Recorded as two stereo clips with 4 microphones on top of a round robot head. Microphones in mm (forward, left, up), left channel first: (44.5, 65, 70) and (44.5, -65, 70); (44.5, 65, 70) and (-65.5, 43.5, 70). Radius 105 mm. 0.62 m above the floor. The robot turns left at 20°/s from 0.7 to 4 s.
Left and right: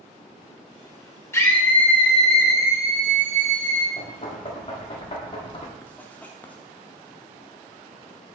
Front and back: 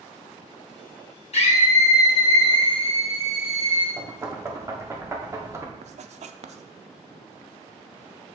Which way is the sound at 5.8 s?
170° left.